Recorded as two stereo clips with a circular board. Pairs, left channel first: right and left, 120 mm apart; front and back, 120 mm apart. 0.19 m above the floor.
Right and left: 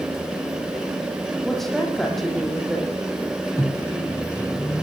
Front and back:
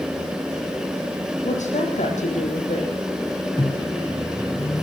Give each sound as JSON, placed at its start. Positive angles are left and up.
{"t": 1.4, "sound": "a woman speaking", "azimuth_deg": -5, "distance_m": 7.0}
{"t": 3.6, "sound": "a microwave", "azimuth_deg": -35, "distance_m": 1.1}